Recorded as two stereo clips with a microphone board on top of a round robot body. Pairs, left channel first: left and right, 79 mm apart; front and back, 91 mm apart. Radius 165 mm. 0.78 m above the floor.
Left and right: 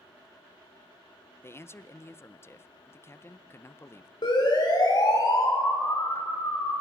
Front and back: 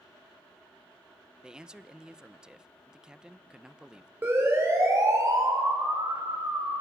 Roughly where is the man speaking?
Left.